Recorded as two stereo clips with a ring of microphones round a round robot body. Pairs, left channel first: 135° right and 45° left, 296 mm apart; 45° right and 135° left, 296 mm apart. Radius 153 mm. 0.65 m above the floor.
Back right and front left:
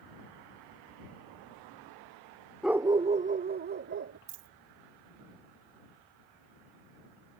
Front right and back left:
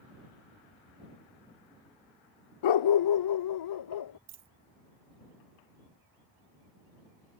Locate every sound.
2.6 s a dog barking: 45° right; by 4.2 s 10° right
4.3 s a dropped coin: 65° left